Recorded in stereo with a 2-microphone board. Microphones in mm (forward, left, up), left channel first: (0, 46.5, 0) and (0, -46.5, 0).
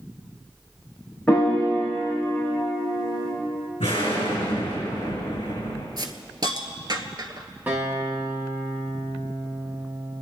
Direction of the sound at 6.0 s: 50° right (ahead or behind).